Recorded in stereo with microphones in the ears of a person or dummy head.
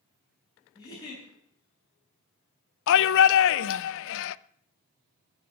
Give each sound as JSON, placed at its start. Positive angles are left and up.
{"t": 0.8, "sound": "a giggle", "side_deg": 20, "distance_m": 9.5}
{"t": 2.9, "sound": "a shout", "side_deg": 70, "distance_m": 0.6}